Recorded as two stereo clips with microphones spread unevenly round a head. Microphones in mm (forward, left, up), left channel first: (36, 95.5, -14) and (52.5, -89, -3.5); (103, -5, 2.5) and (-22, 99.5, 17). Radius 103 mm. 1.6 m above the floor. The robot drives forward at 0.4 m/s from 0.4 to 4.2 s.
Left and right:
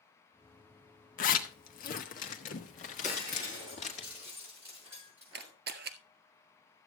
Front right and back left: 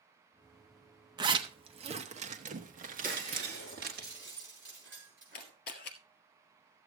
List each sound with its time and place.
1.2 s a zipper: 100° left, 1.1 m; by 4.0 s 155° left, 1.7 m
3.0 s breaking glass: 165° right, 5.5 m
5.3 s a camera shutter: 80° right, 1.4 m